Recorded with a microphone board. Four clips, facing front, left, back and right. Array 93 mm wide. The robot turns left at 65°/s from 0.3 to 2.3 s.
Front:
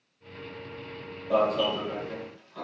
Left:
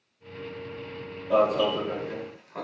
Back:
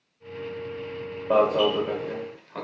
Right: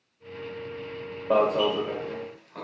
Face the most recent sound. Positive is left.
turn(degrees=160)